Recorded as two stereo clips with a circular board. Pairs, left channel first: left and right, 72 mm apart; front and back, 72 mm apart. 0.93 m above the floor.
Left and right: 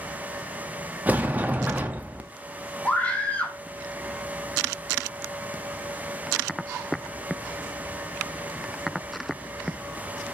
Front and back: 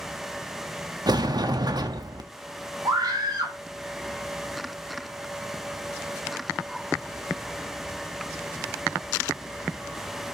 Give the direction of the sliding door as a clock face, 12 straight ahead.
5 o'clock.